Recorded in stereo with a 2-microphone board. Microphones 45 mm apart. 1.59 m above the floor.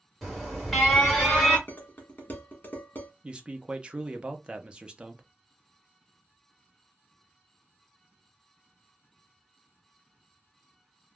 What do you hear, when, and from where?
0.2 s an alarm: centre (ahead or behind), 1.3 m
1.7 s dishes clattering: 45° left (ahead or behind), 1.0 m
3.2 s a man speaking: 25° right (ahead or behind), 0.6 m